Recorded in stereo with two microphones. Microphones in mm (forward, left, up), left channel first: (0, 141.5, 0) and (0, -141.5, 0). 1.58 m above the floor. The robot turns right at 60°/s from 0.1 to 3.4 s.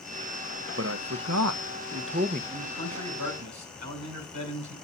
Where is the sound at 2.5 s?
130° right, 5.5 m; by 4.8 s 80° right, 5.5 m.